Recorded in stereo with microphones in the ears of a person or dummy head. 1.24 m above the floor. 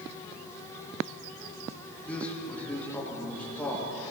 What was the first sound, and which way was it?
A man speaking, 5° left (ahead or behind).